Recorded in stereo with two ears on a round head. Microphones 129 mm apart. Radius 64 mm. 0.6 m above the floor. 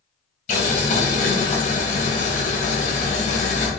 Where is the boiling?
55° left (ahead or behind), 2 m.